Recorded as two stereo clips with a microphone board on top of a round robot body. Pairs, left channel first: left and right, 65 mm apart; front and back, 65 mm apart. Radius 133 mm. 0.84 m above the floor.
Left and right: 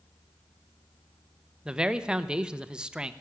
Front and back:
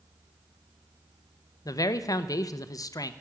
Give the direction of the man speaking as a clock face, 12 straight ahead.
12 o'clock.